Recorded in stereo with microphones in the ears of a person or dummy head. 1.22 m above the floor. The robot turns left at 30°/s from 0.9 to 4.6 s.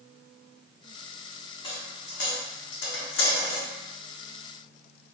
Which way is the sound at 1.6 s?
30° left (ahead or behind).